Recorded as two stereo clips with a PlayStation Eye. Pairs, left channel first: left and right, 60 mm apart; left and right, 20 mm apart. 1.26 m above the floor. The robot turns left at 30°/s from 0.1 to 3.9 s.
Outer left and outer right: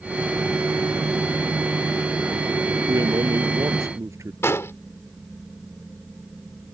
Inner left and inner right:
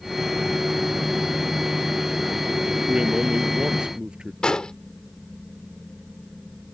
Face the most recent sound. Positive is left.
turn(degrees=45)  # may be behind; listen again after turning